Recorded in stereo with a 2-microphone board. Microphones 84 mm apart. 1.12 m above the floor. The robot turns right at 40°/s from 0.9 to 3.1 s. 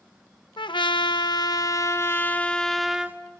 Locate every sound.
0.6 s a trumpet: 100° left, 0.9 m; by 3.2 s 170° right, 0.9 m